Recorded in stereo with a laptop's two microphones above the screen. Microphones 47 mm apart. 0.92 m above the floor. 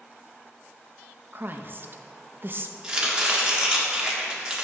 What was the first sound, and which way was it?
A woman speaking, 45° right (ahead or behind).